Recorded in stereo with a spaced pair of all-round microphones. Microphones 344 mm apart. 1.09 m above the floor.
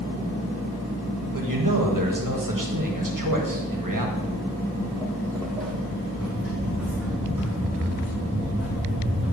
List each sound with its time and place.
1.3 s a man speaking: 70° right (ahead or behind), 1.3 m
4.2 s footsteps: 15° left (ahead or behind), 1.1 m; by 9.3 s 5° right (ahead or behind), 4.5 m